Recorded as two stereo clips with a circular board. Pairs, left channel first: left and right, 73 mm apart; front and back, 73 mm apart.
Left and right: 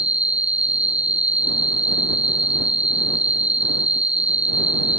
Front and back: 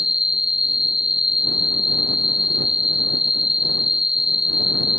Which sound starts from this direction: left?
An insect, at 0.0 s.